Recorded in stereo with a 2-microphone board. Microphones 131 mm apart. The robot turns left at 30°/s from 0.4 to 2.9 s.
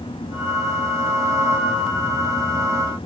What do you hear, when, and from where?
Only background noise.